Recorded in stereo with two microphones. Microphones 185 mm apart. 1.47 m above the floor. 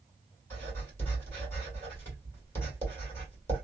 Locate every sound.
0.5 s writing: 15° left (ahead or behind), 1.8 m